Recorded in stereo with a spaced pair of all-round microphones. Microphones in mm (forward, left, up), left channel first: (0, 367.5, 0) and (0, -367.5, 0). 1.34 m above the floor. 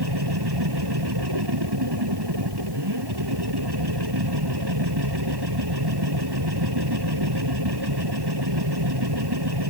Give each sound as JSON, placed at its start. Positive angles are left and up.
{"t": 0.0, "sound": "a machine running", "side_deg": -30}